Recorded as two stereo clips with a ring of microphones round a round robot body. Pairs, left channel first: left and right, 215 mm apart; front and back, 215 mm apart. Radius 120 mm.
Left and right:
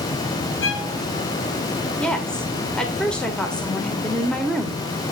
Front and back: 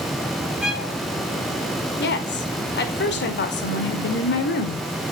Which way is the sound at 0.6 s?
95° left.